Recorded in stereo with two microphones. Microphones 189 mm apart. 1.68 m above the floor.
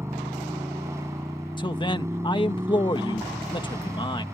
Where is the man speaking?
25° left (ahead or behind).